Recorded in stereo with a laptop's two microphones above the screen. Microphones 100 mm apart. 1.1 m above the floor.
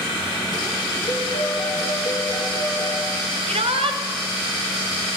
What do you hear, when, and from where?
1.1 s a piano: 65° left (ahead or behind), 7.5 m
3.5 s a shout: 75° right (ahead or behind), 1.5 m